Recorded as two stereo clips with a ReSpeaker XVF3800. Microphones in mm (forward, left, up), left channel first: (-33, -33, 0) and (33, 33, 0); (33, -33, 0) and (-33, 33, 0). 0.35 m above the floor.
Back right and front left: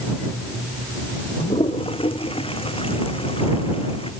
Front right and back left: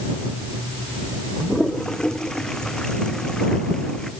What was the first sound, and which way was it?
A toilet flushing, 130° right.